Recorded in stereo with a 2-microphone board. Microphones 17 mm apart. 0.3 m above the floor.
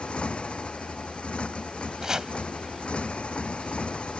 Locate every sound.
0.0 s a motorcycle: 85° left
2.0 s chopping: 40° right (ahead or behind)